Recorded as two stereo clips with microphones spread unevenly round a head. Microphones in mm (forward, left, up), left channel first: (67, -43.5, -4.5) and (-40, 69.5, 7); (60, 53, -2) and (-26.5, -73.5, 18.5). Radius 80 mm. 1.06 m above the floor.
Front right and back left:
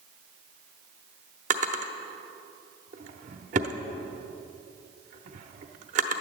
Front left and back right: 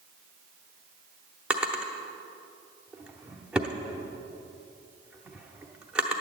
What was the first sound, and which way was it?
A drawer, 160° left.